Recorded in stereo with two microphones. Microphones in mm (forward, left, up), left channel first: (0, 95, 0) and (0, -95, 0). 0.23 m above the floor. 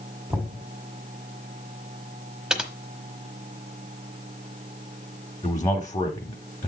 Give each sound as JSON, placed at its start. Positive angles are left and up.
{"t": 0.3, "sound": "knocking", "side_deg": -10, "distance_m": 1.6}
{"t": 2.5, "sound": "typing on a keyboard", "side_deg": -5, "distance_m": 1.1}
{"t": 5.4, "sound": "a man speaking", "side_deg": 20, "distance_m": 1.1}